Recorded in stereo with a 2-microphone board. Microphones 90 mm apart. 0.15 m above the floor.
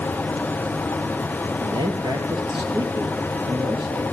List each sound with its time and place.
1.6 s a man speaking: 65° right (ahead or behind), 3.5 m; by 4.0 s 55° right (ahead or behind), 4.5 m